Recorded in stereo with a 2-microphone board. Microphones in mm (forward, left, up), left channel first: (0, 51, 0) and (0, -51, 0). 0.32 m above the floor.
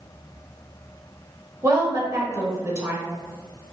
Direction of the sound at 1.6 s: 30° right (ahead or behind).